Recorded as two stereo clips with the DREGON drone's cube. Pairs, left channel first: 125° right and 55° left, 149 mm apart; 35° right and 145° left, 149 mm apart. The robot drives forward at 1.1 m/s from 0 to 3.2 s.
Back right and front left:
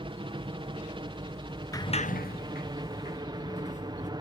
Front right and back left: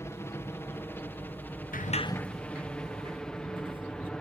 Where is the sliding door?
55° right; by 4.1 s 160° right.